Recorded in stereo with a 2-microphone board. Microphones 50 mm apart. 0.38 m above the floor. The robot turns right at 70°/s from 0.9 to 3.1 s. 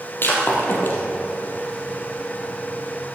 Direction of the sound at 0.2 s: 50° left (ahead or behind).